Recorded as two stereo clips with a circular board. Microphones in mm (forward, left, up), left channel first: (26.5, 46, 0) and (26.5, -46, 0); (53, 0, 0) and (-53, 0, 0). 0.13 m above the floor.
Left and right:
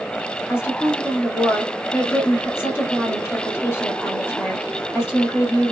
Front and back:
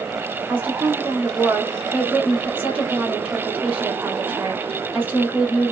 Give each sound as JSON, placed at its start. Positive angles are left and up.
{"t": 0.5, "sound": "a woman speaking", "azimuth_deg": 120, "distance_m": 1.3}